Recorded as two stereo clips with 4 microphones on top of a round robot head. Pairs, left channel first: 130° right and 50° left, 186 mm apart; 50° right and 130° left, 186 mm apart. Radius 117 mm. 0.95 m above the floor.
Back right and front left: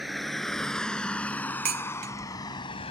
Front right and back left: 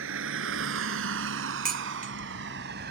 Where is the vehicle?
140° left; by 2.9 s 170° left.